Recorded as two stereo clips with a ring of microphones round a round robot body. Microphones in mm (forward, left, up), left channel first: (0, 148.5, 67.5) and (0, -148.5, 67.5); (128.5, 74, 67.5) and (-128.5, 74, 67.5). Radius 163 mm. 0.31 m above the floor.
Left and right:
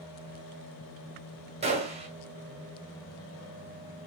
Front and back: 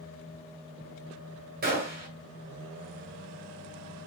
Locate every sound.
1.6 s a gunshot: 150° right, 1.5 m